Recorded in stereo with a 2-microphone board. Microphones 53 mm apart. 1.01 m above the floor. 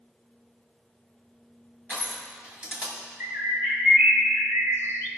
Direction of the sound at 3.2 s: 50° right (ahead or behind).